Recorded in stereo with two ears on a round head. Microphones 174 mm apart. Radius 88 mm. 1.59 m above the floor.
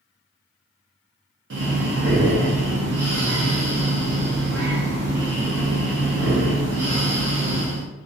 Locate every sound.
1.5 s breathing: 65° right (ahead or behind), 0.8 m